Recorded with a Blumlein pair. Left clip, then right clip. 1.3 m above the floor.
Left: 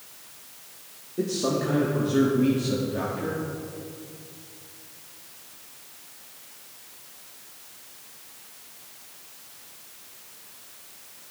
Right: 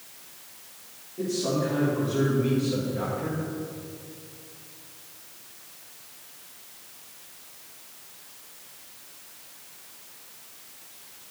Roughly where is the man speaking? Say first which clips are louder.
Left 1 dB; ahead left.